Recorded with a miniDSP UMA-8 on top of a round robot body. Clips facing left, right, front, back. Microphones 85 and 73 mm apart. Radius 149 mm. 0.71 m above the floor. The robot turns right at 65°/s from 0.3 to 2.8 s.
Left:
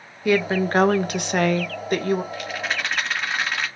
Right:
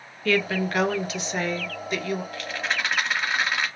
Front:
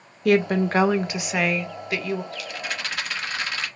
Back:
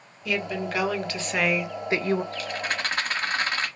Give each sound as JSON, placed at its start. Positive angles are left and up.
{"t": 0.2, "sound": "a woman speaking", "azimuth_deg": 15, "distance_m": 0.7}
{"t": 2.3, "sound": "a rattle", "azimuth_deg": 155, "distance_m": 1.3}